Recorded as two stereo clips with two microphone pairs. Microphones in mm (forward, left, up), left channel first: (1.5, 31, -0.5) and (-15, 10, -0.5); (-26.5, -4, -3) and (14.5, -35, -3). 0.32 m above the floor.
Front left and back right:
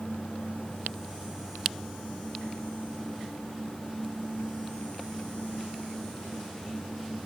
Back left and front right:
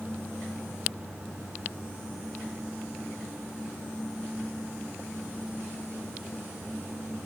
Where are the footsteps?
I don't hear footsteps.